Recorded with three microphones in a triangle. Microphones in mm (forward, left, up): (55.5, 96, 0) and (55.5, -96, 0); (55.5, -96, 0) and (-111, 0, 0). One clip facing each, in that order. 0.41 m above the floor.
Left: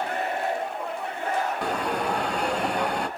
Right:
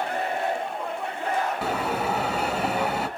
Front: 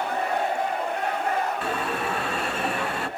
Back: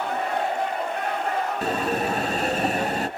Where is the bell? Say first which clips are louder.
Even, back 3 dB; 170° right, 1.2 m.